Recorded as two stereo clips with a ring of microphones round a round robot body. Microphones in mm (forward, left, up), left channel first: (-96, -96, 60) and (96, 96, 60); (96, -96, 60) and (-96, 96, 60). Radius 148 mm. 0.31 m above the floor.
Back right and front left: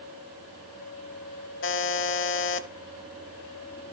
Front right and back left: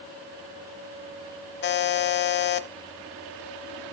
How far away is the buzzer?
About 1.0 m.